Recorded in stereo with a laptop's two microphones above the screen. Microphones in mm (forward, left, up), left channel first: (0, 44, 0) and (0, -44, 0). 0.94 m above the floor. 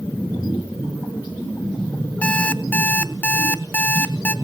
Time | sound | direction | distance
2.2 | an alarm clock | 20° left (ahead or behind) | 0.9 m